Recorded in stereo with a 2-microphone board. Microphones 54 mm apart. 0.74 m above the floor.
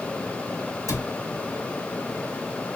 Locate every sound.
0.9 s a cupboard door: 80° left, 1.7 m